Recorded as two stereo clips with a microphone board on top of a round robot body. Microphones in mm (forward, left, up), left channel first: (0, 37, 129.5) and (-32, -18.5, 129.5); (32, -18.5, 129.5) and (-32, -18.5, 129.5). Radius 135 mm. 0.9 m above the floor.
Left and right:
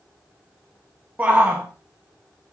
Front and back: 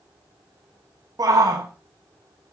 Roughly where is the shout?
Behind.